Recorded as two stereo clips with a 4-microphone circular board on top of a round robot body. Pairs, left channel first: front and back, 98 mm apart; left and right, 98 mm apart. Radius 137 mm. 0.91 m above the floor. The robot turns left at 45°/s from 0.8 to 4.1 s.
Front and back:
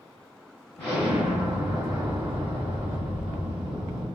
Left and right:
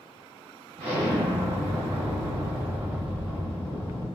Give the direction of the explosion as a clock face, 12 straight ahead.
2 o'clock.